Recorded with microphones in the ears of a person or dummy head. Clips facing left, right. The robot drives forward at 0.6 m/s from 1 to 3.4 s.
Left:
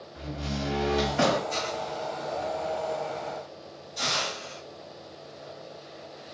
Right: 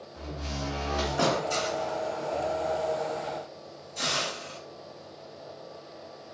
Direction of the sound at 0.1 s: 35° left (ahead or behind).